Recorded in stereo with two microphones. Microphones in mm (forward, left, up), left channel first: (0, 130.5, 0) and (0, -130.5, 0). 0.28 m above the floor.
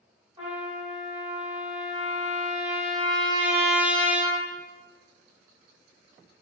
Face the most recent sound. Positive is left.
turn(degrees=-20)  # may be behind; listen again after turning